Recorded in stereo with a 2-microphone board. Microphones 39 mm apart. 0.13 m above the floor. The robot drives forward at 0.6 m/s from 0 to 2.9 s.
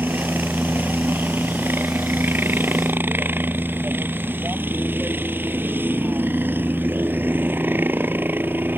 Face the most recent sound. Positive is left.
turn(degrees=-65)  # may be behind; listen again after turning